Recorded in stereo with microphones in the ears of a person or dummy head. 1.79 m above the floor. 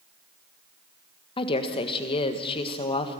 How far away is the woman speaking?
About 1.5 m.